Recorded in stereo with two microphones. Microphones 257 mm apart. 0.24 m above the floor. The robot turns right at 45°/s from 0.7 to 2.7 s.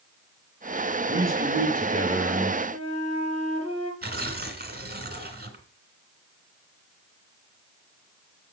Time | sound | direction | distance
1.1 | a man speaking | 65° right | 5 m
2.7 | a flute | 80° left | 3 m
4.0 | tearing paper | 40° right (ahead or behind) | 1.7 m